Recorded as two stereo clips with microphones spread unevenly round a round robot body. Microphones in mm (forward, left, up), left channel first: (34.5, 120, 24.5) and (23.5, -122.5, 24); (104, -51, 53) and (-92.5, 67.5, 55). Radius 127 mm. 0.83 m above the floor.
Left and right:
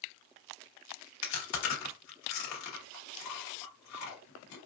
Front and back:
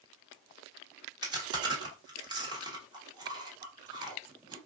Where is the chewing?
75° left, 1.6 m.